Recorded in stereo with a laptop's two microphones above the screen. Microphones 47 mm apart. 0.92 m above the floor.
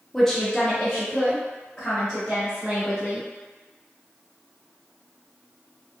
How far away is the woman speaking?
About 0.6 m.